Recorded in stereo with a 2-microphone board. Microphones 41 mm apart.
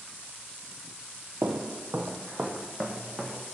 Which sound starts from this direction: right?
Footsteps, at 1.4 s.